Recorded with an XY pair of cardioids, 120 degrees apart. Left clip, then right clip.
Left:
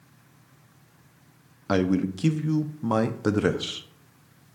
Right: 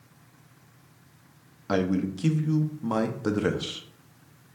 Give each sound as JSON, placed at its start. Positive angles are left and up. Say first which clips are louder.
{"t": 1.7, "sound": "a man speaking", "louder": "left 2 dB", "azimuth_deg": 25, "distance_m": 0.5}